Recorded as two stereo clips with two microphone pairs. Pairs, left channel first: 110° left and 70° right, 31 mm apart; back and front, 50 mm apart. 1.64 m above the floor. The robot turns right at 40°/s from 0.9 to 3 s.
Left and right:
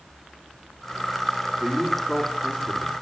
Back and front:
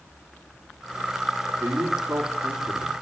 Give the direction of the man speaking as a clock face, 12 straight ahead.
12 o'clock.